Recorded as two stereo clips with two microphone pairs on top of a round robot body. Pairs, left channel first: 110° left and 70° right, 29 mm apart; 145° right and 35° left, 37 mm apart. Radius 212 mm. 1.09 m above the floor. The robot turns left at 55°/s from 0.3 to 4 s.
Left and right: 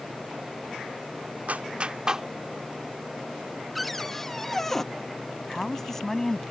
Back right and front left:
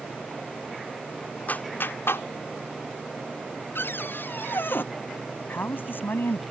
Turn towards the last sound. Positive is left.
turn(degrees=-170)